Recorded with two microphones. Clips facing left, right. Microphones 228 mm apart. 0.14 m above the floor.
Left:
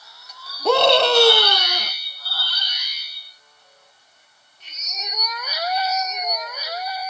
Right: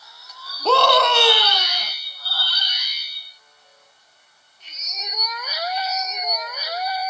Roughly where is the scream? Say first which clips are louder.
Left 2 dB; centre.